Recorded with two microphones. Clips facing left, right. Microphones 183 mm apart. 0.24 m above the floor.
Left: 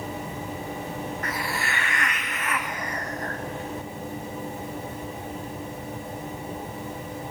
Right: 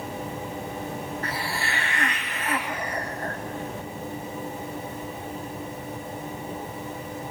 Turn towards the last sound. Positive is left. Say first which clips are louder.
# even
turn(degrees=-30)  # may be behind; listen again after turning